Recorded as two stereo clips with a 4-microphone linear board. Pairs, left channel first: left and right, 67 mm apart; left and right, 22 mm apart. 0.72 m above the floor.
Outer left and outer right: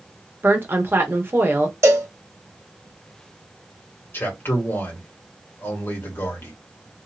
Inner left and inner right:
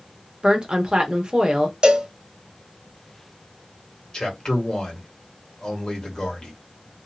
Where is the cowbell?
45° right (ahead or behind), 1.1 m.